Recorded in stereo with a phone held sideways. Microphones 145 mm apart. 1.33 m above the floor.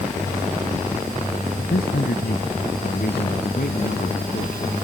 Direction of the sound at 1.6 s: 85° left.